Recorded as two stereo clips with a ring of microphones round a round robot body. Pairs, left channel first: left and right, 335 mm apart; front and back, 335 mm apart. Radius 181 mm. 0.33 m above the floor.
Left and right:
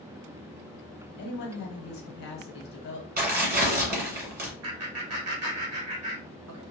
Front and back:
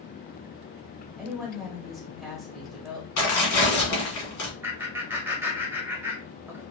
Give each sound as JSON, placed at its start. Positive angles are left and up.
{"t": 1.2, "sound": "a woman speaking", "azimuth_deg": 90, "distance_m": 0.9}
{"t": 3.2, "sound": "tearing paper", "azimuth_deg": -30, "distance_m": 1.6}
{"t": 4.6, "sound": "laughter", "azimuth_deg": -100, "distance_m": 1.2}